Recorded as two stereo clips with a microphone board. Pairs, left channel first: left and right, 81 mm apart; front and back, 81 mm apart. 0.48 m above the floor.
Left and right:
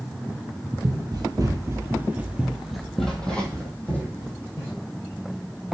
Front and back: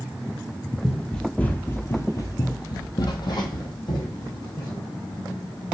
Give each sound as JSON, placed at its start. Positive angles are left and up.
{"t": 0.8, "sound": "running footsteps", "azimuth_deg": -90, "distance_m": 0.8}